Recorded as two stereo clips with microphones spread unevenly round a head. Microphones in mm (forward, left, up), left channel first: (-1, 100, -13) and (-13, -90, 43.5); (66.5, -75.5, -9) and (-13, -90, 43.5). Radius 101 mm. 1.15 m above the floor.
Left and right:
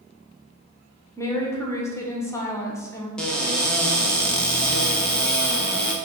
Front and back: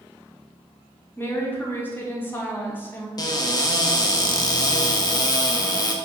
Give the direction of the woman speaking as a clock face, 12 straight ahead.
11 o'clock.